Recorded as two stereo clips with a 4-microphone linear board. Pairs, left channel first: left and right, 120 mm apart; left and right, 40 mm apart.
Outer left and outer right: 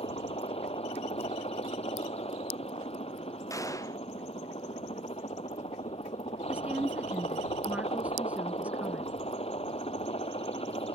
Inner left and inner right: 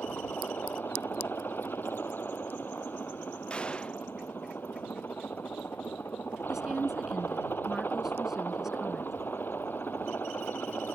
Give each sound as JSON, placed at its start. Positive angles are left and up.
{"t": 0.0, "sound": "a helicopter", "side_deg": 55}
{"t": 3.5, "sound": "a gunshot", "side_deg": 25}
{"t": 6.5, "sound": "a woman speaking", "side_deg": -10}